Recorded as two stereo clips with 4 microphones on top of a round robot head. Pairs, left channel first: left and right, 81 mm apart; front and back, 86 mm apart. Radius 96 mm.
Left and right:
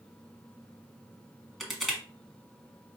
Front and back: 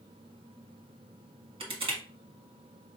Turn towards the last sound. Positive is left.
turn(degrees=180)